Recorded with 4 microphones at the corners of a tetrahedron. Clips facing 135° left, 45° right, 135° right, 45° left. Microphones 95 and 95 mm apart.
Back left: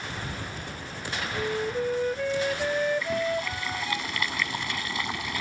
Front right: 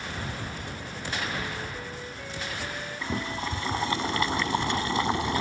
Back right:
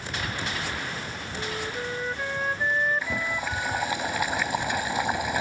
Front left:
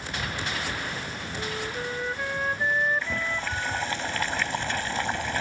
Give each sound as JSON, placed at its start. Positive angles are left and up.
{"t": 1.4, "sound": "a flute", "azimuth_deg": 135}
{"t": 3.0, "sound": "boiling", "azimuth_deg": -65}